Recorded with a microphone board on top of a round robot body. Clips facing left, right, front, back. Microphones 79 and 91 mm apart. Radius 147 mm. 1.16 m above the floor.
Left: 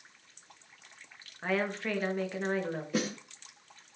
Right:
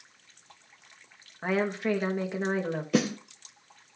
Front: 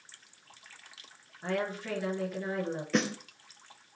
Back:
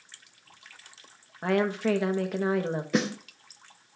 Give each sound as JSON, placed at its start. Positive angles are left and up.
{"t": 1.4, "sound": "a woman speaking", "azimuth_deg": -165, "distance_m": 1.8}
{"t": 2.9, "sound": "a snare drum", "azimuth_deg": -95, "distance_m": 0.6}